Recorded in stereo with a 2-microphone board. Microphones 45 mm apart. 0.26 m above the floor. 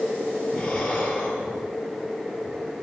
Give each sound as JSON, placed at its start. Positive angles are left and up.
{"t": 0.5, "sound": "breathing", "side_deg": 10, "distance_m": 7.0}